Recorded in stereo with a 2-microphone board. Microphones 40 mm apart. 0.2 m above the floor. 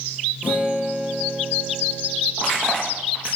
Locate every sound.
0.4 s a guitar: 50° right (ahead or behind), 6 m
2.4 s crushing: 20° right (ahead or behind), 8.5 m